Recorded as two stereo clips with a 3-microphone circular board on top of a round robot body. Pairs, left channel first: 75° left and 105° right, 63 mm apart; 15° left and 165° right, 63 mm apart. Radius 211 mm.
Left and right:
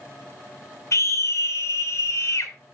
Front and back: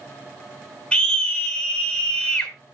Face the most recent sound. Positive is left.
turn(degrees=80)